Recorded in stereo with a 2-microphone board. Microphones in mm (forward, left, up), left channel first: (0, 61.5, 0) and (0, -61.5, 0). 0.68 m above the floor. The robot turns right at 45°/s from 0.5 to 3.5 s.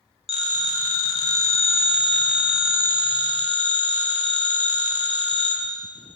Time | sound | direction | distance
0.3 | a phone ringing | 105° left | 0.8 m